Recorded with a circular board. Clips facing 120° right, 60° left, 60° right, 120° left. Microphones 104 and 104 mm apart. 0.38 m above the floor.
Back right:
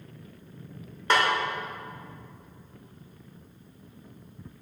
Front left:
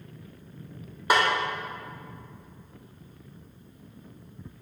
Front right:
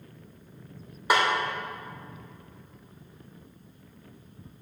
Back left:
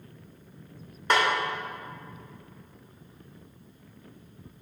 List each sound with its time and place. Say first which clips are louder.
1.1 s a snare drum: front left 1 dB, even; straight ahead, 1.2 m